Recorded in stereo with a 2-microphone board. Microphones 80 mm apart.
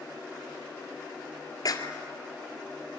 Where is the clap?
50° left (ahead or behind), 2.0 m.